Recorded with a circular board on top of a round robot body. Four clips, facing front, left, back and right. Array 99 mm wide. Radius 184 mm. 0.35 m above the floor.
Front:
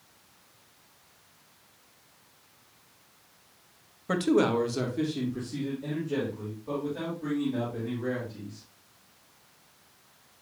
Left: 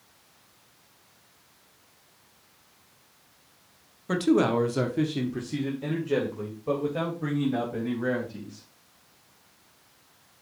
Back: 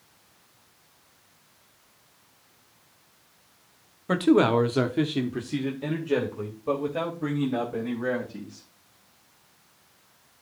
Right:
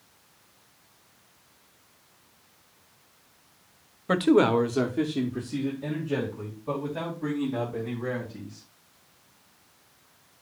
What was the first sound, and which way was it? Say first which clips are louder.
A man speaking: right 2 dB, back 4 dB; 115° right.